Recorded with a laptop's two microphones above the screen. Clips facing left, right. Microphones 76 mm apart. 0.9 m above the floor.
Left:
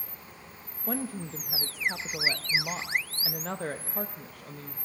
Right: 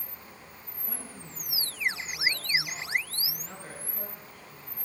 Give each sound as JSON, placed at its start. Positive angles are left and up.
{"t": 0.9, "sound": "a woman speaking", "side_deg": 65, "distance_m": 0.6}